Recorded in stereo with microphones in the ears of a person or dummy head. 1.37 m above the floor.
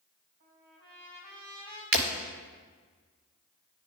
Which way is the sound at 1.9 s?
65° right (ahead or behind).